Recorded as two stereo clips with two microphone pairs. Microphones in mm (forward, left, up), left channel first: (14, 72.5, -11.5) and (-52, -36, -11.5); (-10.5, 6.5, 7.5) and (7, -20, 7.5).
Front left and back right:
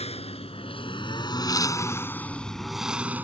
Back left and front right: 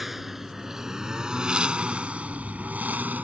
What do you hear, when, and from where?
0.0 s a lawn mower: 30° left; by 3.2 s 50° right